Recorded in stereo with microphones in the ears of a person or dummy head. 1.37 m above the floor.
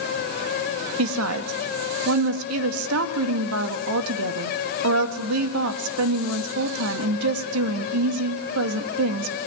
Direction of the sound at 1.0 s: 80° right.